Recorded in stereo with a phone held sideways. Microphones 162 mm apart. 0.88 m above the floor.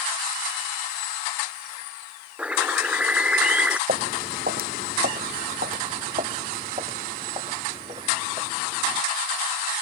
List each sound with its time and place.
2.4 s a bird: 10° right (ahead or behind)
3.9 s footsteps: 65° right (ahead or behind); by 9.0 s 30° right (ahead or behind)